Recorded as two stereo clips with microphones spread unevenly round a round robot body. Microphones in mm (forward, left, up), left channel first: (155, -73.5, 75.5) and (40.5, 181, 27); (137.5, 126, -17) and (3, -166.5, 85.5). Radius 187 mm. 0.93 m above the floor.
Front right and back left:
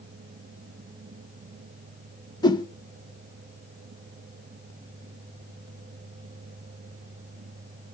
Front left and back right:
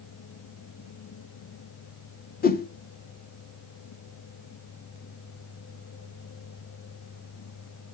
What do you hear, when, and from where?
2.4 s a whoosh: 15° left, 1.2 m